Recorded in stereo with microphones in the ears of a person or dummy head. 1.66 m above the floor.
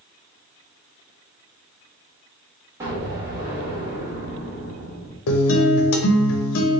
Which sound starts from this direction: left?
A guitar, at 5.3 s.